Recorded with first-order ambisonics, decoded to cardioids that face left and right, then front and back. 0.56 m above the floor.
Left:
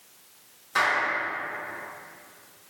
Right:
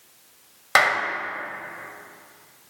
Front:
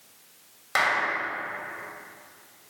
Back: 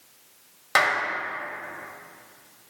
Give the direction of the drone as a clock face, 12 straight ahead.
No drone in this recording.